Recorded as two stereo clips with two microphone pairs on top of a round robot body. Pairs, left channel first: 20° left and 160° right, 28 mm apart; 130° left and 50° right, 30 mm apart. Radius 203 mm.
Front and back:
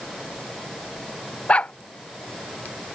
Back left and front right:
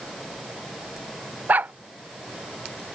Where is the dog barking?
25° right.